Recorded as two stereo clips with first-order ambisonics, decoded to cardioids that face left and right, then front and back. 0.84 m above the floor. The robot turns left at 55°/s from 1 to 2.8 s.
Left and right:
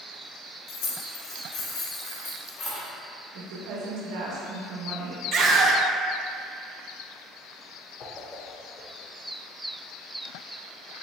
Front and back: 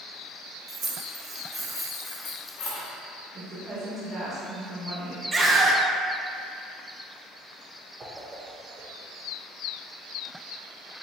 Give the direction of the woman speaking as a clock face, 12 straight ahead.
4 o'clock.